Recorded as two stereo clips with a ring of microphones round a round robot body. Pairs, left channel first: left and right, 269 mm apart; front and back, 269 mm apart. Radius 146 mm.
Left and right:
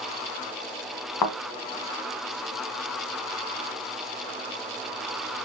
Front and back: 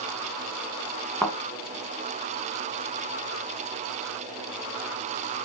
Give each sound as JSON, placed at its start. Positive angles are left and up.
{"t": 1.2, "sound": "a thud", "azimuth_deg": 90, "distance_m": 1.9}